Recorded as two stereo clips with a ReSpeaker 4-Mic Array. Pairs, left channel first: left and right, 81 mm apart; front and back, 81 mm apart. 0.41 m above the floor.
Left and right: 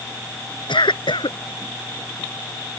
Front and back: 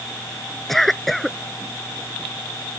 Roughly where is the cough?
Left.